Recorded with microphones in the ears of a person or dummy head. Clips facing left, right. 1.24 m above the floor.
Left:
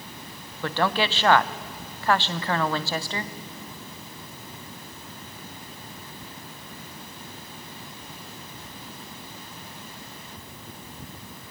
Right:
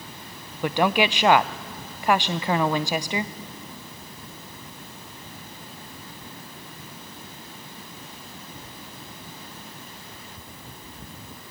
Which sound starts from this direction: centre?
A woman speaking, at 0.6 s.